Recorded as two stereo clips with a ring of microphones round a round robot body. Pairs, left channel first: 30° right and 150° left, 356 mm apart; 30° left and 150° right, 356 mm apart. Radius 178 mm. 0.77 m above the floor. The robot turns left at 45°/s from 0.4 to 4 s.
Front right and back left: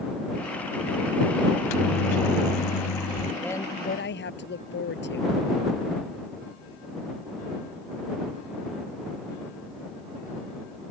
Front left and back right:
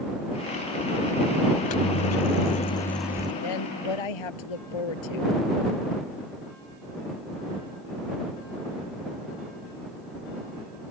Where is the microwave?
10° left; by 3.3 s 75° right.